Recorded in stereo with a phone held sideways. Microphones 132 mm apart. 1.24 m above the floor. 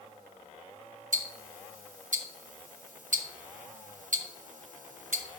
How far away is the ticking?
About 0.9 m.